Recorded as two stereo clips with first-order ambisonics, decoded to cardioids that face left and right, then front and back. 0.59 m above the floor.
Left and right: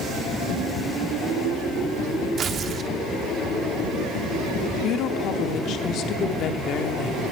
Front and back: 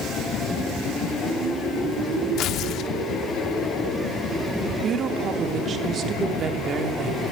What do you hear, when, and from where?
2.4 s tearing paper: 30° right, 0.7 m
4.8 s a woman speaking: 125° left, 1.0 m